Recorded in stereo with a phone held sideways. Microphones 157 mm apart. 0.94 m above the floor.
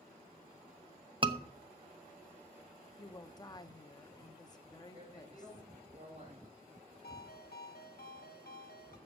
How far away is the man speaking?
About 6.5 m.